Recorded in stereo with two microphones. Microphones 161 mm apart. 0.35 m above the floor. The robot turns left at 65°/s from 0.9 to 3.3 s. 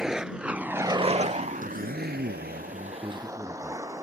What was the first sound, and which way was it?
A vehicle, 5° right (ahead or behind).